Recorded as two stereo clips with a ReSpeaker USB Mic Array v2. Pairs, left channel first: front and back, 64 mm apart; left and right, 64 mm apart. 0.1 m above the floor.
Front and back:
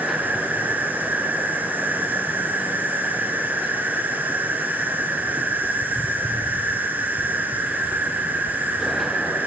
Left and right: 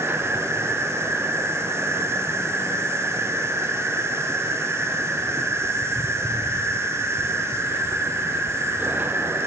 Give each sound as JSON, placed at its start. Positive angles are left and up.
{"t": 0.0, "sound": "an insect", "azimuth_deg": -125, "distance_m": 2.5}